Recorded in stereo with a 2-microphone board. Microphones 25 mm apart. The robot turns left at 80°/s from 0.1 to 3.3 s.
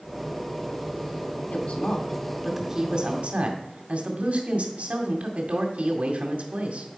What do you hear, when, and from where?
1.5 s a woman speaking: 75° left, 2.5 m; by 6.9 s 70° right, 2.5 m